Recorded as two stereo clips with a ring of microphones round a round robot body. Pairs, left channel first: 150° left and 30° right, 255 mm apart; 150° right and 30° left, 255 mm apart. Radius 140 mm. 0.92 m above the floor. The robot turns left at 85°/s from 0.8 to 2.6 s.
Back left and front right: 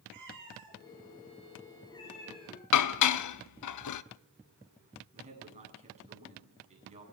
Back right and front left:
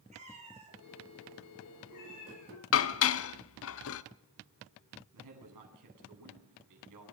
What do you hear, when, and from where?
0.1 s a cat meowing: 35° right, 9 m; by 2.6 s 170° left, 9 m
2.7 s dishes clattering: 170° left, 0.9 m
5.1 s a man speaking: 35° left, 9 m